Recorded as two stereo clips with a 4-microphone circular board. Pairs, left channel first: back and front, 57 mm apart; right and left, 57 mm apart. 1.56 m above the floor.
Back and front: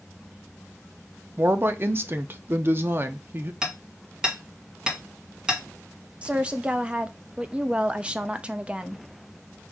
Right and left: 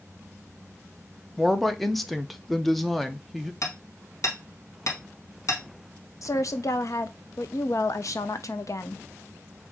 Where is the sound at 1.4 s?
5° right, 0.5 m.